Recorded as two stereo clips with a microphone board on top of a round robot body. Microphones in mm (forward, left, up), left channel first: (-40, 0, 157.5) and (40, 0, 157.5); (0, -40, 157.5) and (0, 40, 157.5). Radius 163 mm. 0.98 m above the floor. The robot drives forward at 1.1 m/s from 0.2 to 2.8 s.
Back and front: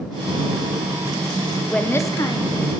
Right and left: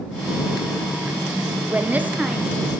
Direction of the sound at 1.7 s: 105° left.